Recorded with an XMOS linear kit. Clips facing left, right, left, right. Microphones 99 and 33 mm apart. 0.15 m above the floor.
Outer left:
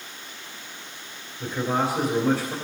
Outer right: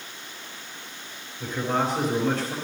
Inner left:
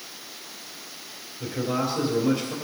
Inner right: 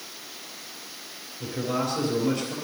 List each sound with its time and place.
1.4 s a man speaking: 5° left (ahead or behind), 3 m